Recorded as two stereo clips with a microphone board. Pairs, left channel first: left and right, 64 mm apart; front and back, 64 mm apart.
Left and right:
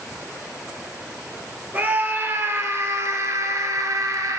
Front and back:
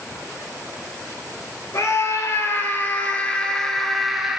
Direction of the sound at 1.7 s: 30° right.